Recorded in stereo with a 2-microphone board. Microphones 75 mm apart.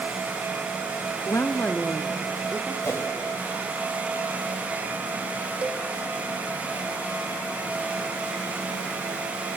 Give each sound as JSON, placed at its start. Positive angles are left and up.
{"t": 1.3, "sound": "a woman speaking", "side_deg": 45, "distance_m": 1.0}
{"t": 2.8, "sound": "a whoosh", "side_deg": 35, "distance_m": 2.5}
{"t": 5.6, "sound": "a cowbell", "side_deg": -15, "distance_m": 1.0}